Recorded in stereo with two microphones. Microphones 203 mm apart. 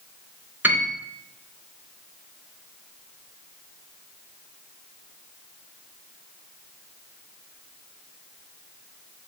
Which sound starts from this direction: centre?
A piano, at 0.6 s.